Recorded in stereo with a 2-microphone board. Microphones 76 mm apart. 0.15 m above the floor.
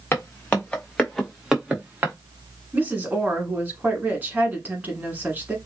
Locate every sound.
0.1 s footsteps: 30° left (ahead or behind), 1.3 m; by 2.1 s 25° right (ahead or behind), 1.2 m
2.7 s a woman speaking: 25° right (ahead or behind), 1.2 m